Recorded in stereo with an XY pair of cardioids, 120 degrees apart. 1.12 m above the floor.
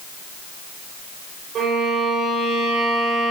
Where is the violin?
65° right, 3 m.